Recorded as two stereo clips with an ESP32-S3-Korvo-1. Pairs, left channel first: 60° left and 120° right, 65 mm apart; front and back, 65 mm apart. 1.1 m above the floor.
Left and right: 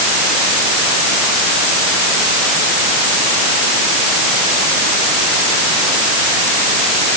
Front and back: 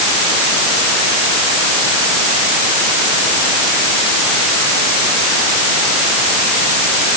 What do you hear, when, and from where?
Only background noise.